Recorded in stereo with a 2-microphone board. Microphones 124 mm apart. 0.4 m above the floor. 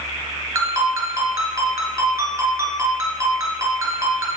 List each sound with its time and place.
0.6 s a ringtone: 20° right (ahead or behind), 2.0 m